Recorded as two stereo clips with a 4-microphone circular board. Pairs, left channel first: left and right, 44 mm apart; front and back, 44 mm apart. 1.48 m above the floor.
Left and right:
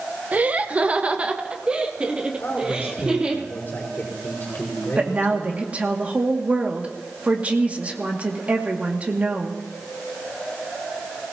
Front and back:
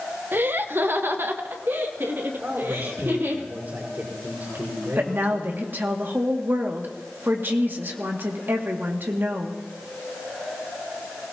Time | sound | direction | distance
0.3 | laughter | 140° right | 1.0 m
2.4 | a man speaking | 145° left | 5.5 m
5.0 | a woman speaking | 145° right | 2 m